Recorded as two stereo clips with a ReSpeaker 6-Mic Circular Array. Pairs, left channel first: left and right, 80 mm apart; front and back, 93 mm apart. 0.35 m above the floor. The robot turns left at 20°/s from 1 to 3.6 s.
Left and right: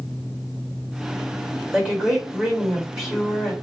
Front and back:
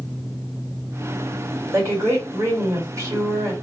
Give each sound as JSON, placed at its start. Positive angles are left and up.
{"t": 1.7, "sound": "a woman speaking", "azimuth_deg": -150, "distance_m": 1.6}